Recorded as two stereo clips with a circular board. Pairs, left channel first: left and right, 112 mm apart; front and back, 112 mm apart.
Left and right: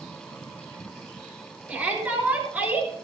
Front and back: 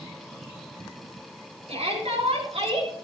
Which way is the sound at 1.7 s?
165° right.